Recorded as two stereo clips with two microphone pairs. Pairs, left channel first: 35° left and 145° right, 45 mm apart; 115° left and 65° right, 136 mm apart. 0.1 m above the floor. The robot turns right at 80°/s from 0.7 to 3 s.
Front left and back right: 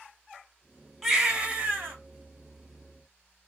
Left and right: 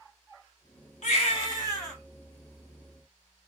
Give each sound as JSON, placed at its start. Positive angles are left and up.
{"t": 1.0, "sound": "a baby crying", "azimuth_deg": 125, "distance_m": 2.0}